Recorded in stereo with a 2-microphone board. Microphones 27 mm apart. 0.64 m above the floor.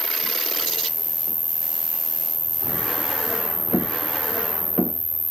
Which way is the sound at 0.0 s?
75° right (ahead or behind).